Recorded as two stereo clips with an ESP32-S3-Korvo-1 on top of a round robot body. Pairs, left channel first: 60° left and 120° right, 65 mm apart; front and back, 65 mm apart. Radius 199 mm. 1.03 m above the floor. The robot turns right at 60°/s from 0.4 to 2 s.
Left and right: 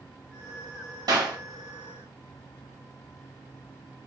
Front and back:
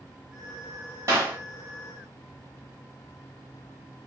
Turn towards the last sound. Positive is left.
turn(degrees=-75)